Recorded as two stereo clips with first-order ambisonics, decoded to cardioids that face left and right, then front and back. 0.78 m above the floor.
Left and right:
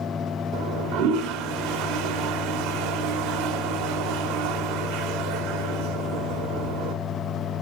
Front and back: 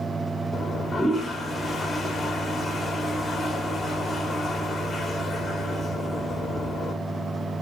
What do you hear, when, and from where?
0.5 s a toilet flushing: 80° right, 0.9 m